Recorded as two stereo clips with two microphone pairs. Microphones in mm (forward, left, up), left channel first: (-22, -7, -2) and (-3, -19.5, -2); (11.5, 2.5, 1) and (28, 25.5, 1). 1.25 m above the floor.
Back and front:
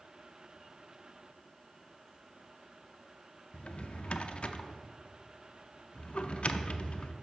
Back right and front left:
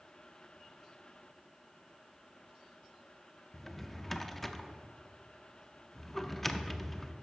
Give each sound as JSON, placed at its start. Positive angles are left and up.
{"t": 3.5, "sound": "a drawer", "azimuth_deg": 150, "distance_m": 0.5}